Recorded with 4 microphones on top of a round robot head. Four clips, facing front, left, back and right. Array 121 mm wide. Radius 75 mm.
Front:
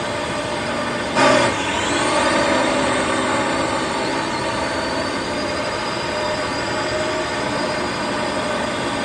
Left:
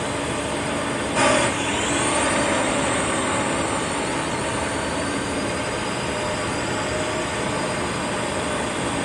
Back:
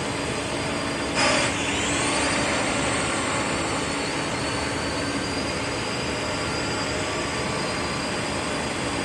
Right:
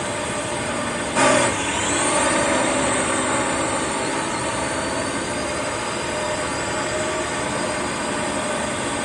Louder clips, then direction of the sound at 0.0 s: Even, front 5 dB; 15° right.